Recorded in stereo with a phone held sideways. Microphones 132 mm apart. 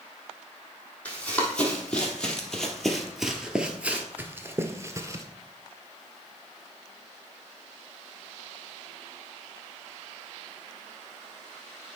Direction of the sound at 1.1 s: 10° left (ahead or behind).